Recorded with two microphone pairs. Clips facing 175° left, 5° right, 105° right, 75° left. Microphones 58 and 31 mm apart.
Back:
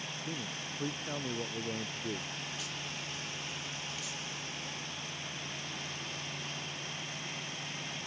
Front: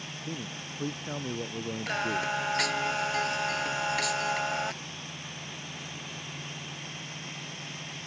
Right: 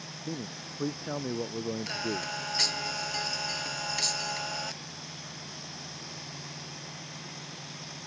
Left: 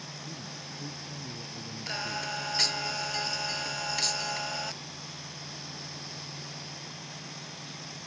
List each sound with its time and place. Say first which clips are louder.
0.3 s a man speaking: front 3 dB, right 3 dB; 85° right
1.9 s singing: front 10 dB, right 1 dB; 5° right